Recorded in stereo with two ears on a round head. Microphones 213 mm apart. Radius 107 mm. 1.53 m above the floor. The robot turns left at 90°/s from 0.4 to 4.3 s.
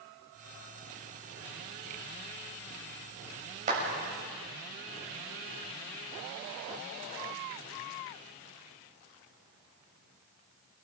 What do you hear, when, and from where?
3.7 s a clap: 35° right (ahead or behind), 6.5 m; by 3.8 s 45° right (ahead or behind), 6.5 m